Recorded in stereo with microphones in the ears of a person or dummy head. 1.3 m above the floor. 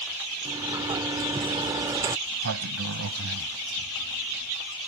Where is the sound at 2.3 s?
75° right (ahead or behind).